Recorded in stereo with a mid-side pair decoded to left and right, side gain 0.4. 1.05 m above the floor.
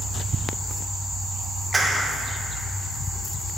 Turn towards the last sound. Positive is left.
turn(degrees=-30)